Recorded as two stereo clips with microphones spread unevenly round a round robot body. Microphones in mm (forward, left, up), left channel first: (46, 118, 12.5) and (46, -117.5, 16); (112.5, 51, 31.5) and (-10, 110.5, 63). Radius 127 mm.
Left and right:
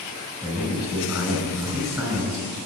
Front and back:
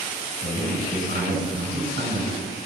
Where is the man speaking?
Straight behind, 4.5 m.